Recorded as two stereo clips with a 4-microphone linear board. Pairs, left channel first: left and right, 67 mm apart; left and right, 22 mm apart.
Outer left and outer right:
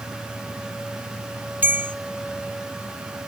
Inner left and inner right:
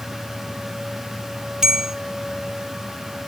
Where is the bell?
30° right (ahead or behind), 0.8 m.